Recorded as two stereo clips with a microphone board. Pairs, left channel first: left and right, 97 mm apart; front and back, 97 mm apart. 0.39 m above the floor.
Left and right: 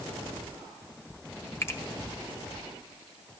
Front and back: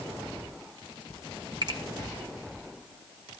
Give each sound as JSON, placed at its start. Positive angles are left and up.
{"t": 1.6, "sound": "a finger snap", "azimuth_deg": 145, "distance_m": 1.3}